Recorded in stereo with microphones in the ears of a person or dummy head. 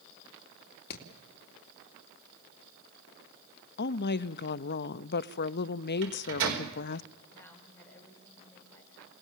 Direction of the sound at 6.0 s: 70° right (ahead or behind).